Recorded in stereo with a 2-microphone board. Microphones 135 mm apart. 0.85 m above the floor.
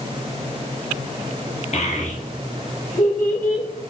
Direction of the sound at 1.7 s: 55° left (ahead or behind).